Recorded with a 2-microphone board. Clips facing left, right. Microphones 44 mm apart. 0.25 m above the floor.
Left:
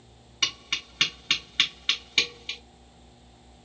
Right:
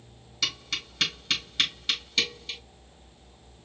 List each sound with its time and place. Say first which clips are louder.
0.4 s tapping: left 2 dB; 30° left (ahead or behind), 3 m